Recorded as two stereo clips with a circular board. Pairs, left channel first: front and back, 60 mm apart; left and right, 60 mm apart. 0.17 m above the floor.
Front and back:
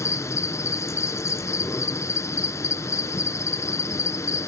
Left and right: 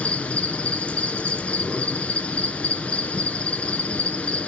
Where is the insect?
25° left, 1.0 m.